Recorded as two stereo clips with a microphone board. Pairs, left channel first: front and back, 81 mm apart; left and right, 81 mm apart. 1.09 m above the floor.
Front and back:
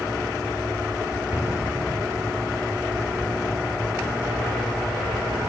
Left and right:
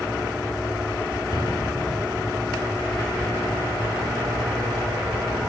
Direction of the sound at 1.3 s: 115° left.